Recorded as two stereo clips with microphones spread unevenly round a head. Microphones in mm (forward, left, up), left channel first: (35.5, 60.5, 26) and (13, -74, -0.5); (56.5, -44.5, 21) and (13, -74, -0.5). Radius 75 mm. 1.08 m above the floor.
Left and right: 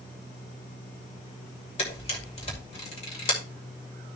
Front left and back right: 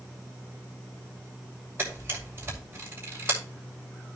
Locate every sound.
1.8 s a camera shutter: 130° left, 2.5 m